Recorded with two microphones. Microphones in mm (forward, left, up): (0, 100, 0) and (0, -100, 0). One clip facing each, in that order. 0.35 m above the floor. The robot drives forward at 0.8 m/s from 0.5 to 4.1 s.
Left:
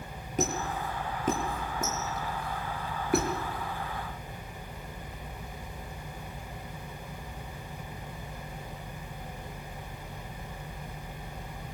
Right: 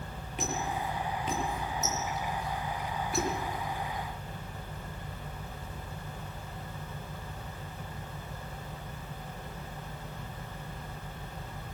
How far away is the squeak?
About 5.5 m.